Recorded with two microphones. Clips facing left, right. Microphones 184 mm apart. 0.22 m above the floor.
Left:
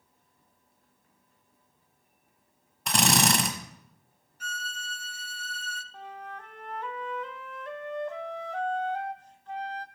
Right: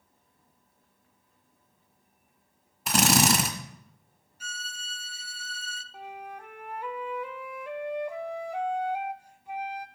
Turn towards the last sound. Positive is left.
turn(degrees=-10)  # may be behind; listen again after turning